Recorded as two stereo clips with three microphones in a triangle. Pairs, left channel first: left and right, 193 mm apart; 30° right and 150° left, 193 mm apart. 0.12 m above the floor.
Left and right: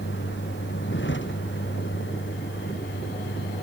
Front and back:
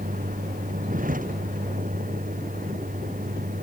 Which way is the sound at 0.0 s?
105° left.